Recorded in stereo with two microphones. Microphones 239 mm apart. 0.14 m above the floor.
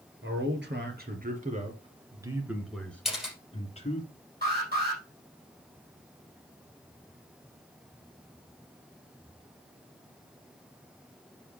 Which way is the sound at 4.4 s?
40° right (ahead or behind).